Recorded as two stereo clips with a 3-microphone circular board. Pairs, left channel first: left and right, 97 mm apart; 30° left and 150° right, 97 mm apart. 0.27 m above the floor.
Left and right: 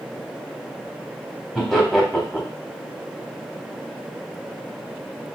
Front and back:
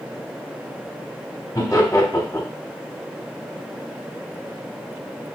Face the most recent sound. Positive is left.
turn(degrees=0)